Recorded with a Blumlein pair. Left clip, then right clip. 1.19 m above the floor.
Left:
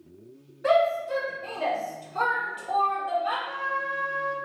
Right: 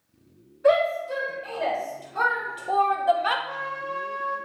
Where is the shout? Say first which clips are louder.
Right 1 dB; 10° left, 1.7 m; by 3.4 s 45° right, 0.5 m.